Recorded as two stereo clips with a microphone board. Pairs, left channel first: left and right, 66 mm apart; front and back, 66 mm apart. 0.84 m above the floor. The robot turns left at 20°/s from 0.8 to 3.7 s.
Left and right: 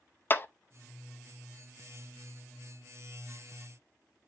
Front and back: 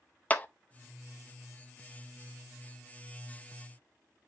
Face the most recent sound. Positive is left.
turn(degrees=-5)